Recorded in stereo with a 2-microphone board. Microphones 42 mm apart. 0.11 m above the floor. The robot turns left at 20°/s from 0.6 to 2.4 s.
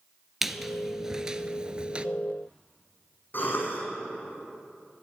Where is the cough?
55° left (ahead or behind), 6 m.